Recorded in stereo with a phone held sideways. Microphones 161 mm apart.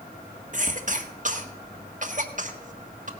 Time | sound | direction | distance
0.5 | a cough | 55° right (ahead or behind) | 1.5 m